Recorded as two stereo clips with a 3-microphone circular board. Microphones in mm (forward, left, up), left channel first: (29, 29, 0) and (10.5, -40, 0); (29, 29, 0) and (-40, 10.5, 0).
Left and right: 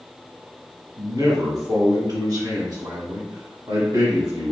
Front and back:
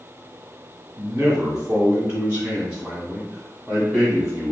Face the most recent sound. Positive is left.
turn(degrees=-80)